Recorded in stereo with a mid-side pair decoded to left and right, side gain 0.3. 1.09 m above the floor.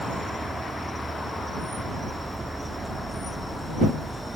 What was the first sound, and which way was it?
An insect, 35° right.